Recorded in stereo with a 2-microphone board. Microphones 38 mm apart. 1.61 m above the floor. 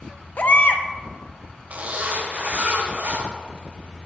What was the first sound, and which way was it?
A baby crying, 50° left (ahead or behind).